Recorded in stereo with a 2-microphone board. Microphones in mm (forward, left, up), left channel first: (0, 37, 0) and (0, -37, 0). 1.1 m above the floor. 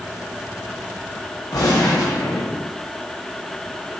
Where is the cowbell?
No cowbell in this recording.